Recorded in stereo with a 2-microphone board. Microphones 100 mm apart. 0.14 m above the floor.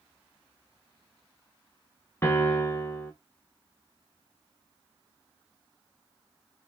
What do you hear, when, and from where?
2.2 s a piano: 25° left (ahead or behind), 0.9 m